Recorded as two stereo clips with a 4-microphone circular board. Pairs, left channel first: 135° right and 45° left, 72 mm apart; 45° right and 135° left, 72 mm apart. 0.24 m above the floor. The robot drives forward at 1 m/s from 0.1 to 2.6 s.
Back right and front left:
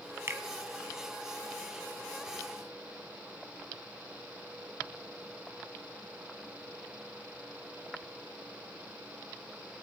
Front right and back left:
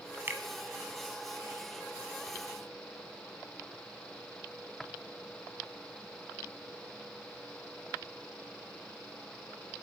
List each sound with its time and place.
0.3 s a finger snap: 90° left, 1.3 m; by 0.4 s 95° left, 1.3 m